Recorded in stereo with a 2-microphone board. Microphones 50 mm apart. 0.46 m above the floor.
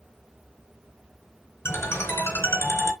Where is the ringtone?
55° left (ahead or behind), 3 m.